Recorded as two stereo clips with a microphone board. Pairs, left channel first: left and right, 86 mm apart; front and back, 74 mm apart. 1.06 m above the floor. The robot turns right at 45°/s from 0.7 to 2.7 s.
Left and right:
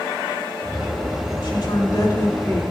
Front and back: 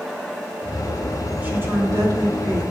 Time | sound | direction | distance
1.4 | a woman speaking | 115° left | 3 m